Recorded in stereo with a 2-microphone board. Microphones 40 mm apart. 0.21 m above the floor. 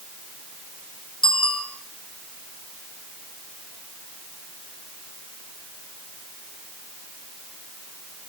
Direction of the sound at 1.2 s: 20° left (ahead or behind).